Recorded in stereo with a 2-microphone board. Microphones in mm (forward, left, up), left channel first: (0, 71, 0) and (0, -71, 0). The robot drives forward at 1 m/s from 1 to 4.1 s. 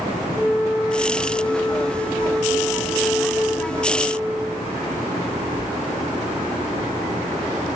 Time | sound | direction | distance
0.3 | a flute | centre (ahead or behind) | 7 m